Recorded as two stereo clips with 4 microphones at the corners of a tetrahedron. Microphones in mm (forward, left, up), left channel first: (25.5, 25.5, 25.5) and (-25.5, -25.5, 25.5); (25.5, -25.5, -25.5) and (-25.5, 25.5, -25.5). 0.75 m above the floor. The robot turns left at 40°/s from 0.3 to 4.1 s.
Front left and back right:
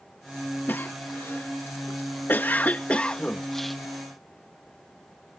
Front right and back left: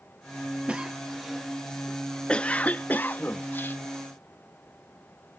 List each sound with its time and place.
0.7 s a cough: 80° left; by 3.8 s 45° right